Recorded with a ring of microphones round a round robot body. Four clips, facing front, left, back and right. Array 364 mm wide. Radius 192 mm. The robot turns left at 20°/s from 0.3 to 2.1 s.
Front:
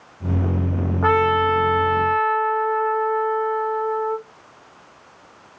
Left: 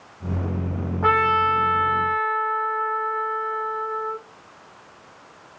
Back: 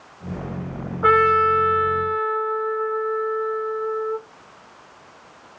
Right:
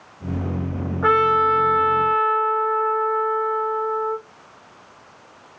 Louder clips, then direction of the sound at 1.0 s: Right 2 dB, back 2 dB; 15° left.